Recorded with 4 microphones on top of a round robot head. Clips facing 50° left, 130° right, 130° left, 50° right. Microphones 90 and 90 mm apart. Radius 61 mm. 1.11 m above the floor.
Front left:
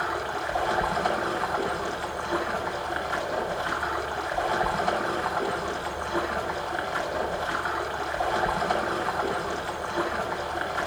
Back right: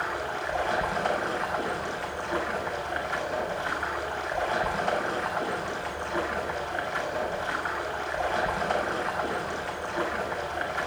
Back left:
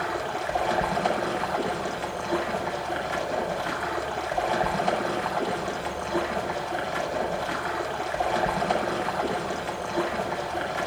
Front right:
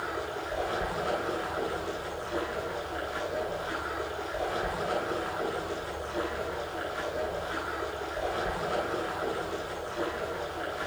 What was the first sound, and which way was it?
Running water, 130° left.